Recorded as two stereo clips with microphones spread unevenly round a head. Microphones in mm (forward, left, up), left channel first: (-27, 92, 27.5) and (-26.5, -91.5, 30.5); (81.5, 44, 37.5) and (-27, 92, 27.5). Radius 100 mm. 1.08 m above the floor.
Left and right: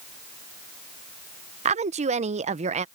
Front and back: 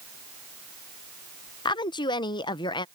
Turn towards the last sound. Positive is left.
turn(degrees=-60)